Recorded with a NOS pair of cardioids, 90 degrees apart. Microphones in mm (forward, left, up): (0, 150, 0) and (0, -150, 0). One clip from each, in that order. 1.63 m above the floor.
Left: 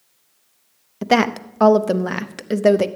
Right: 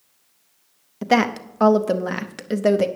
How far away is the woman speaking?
About 0.7 m.